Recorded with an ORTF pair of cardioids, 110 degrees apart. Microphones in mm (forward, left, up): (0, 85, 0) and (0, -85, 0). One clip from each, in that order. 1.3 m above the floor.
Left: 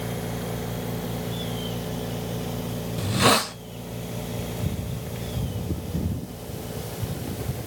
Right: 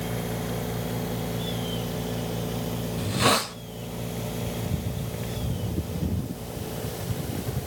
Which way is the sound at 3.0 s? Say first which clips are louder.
Left 3 dB; 15° left.